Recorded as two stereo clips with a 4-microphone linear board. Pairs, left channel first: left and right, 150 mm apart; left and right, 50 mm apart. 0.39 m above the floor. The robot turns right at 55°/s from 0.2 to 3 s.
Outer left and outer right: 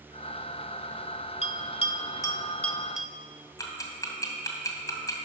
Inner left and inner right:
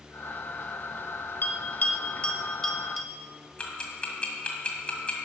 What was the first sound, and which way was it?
A bell, 45° left (ahead or behind).